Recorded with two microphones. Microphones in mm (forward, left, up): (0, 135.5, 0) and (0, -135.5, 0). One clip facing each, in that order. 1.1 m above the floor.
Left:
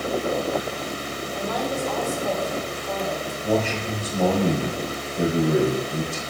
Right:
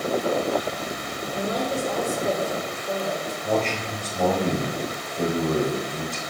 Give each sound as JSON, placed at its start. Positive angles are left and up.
{"t": 1.3, "sound": "a woman speaking", "side_deg": -25, "distance_m": 3.5}
{"t": 3.4, "sound": "a man speaking", "side_deg": 10, "distance_m": 4.0}